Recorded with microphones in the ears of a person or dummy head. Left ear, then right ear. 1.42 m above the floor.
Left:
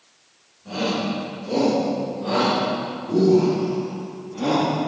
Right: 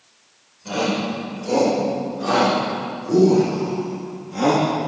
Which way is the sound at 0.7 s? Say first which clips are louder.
Right 2 dB; 80° right.